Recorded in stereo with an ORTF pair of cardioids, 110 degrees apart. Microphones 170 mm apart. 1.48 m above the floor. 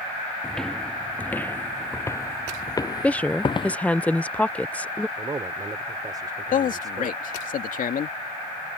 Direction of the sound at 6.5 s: 55° left.